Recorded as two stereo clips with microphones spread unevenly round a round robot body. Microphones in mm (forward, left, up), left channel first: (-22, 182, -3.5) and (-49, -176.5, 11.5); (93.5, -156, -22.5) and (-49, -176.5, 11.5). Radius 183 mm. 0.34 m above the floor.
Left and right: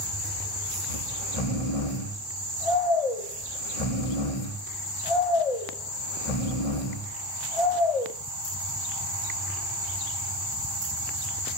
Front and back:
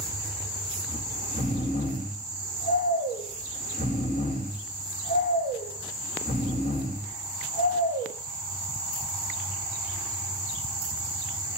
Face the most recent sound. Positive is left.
turn(degrees=80)